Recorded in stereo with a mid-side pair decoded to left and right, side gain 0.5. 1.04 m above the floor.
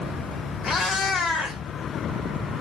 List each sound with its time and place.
0.6 s a cat meowing: 55° left, 1.4 m